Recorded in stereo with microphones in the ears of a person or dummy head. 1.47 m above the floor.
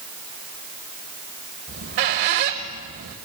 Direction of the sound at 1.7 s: 40° right (ahead or behind).